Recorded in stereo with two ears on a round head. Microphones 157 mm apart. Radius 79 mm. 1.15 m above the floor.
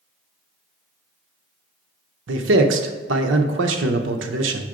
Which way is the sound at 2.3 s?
70° right (ahead or behind).